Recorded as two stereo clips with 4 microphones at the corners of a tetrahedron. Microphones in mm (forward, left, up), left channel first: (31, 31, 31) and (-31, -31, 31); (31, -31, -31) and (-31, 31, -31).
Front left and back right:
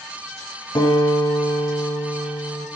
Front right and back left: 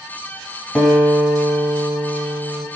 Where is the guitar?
45° left, 0.8 m.